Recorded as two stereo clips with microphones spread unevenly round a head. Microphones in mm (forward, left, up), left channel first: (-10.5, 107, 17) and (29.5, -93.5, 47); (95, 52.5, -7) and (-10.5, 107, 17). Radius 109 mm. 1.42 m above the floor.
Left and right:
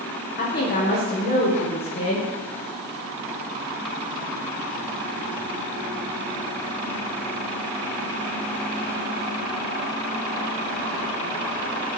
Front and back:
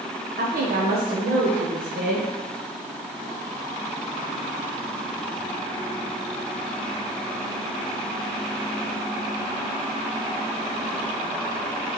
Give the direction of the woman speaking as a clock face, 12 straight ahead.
7 o'clock.